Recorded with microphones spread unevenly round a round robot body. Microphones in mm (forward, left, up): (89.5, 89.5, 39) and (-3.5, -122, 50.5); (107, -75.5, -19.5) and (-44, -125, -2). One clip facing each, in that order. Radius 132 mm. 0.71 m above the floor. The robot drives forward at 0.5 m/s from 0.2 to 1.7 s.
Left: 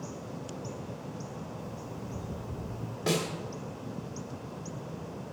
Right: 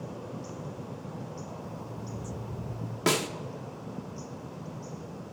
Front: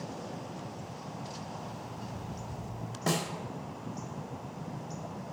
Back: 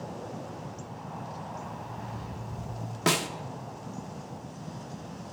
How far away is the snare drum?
About 0.8 m.